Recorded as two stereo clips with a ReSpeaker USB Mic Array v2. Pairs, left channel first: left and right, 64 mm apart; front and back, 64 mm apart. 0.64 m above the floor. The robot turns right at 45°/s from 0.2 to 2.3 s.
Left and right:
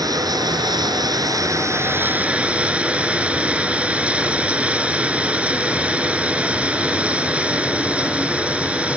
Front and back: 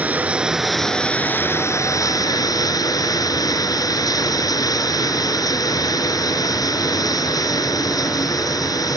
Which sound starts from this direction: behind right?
Running water, at 0.0 s.